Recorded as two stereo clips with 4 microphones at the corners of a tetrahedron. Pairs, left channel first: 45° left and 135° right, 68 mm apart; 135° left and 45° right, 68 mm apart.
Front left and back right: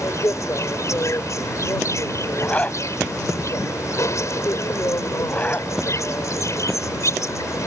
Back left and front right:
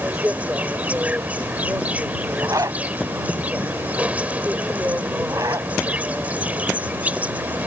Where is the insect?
20° left.